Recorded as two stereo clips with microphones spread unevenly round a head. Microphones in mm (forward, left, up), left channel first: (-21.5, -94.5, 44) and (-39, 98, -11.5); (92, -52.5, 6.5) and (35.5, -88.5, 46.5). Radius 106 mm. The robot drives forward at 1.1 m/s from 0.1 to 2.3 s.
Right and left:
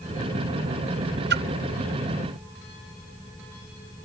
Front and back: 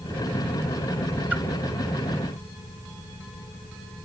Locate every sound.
1.3 s a splash: 135° left